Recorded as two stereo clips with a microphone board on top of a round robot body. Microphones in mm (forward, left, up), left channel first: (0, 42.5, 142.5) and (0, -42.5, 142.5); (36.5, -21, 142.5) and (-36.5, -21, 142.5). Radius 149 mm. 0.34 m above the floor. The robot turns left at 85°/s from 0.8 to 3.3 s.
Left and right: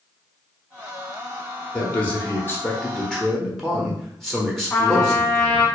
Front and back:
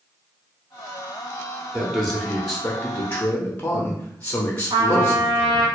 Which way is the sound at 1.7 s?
135° left.